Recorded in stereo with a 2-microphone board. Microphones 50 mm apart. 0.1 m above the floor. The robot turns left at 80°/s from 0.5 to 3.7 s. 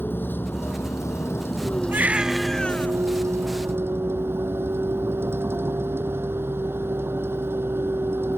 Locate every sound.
0.0 s a vehicle: 135° left; by 8.4 s 125° right
1.9 s a baby crying: 140° right; by 2.9 s 140° left